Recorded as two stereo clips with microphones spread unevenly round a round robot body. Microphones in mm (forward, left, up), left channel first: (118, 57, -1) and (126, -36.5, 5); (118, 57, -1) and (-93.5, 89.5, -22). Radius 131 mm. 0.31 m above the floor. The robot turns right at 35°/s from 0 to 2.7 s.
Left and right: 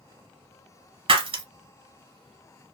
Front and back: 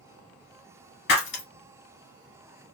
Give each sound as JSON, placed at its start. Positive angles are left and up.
{"t": 1.1, "sound": "breaking glass", "azimuth_deg": -65, "distance_m": 1.2}